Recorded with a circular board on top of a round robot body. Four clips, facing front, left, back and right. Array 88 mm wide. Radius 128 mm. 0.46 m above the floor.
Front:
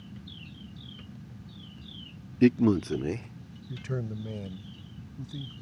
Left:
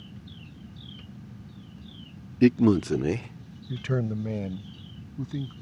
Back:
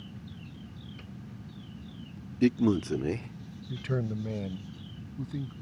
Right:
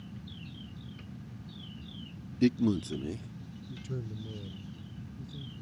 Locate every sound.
2.4 s a man speaking: 65° left; by 5.5 s 105° left